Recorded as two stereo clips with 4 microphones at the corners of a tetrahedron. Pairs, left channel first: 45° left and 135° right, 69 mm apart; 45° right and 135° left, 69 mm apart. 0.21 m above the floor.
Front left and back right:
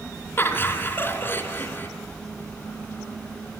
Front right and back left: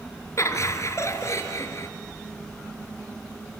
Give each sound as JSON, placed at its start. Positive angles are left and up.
{"t": 0.4, "sound": "laughter", "azimuth_deg": -10, "distance_m": 2.5}